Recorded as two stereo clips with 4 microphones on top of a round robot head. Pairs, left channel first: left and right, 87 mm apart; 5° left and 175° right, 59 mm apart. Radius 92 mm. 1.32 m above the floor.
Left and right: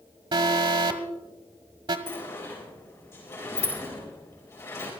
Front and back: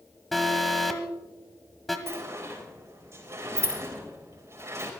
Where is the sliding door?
150° left, 4 m.